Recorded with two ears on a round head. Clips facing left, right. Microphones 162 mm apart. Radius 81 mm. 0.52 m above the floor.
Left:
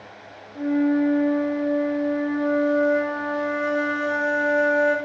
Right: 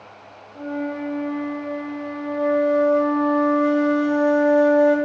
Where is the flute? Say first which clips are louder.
Left 7 dB; 10° left (ahead or behind), 1.2 m.